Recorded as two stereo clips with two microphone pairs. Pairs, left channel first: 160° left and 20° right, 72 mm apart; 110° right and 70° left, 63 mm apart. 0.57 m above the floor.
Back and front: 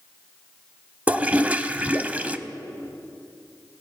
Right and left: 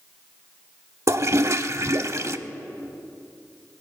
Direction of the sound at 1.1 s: 50° left.